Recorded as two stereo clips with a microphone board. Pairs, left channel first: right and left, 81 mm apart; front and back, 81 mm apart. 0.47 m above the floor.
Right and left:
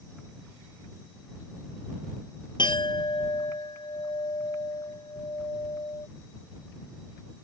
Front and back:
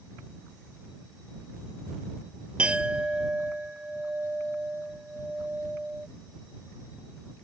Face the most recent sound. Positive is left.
turn(degrees=-105)